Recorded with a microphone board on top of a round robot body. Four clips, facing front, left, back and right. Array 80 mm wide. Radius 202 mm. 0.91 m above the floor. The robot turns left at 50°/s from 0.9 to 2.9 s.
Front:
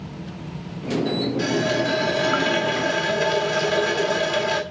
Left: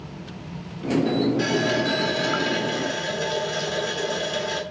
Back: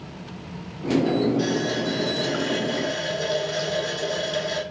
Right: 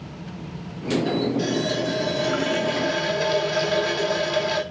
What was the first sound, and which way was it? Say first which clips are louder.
A running tap: left 1 dB, front 2 dB; 50° left.